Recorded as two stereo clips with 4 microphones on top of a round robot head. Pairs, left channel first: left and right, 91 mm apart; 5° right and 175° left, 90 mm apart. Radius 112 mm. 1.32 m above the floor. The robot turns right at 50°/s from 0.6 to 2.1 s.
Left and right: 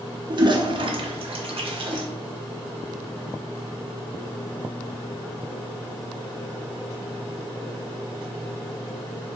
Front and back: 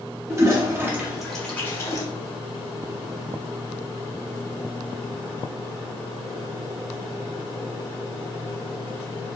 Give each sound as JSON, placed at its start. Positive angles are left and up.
{"t": 0.3, "sound": "a toilet flushing", "azimuth_deg": -125, "distance_m": 0.6}